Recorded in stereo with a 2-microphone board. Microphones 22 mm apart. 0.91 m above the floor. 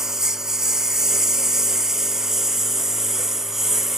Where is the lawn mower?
15° right (ahead or behind); by 4.0 s 10° right (ahead or behind).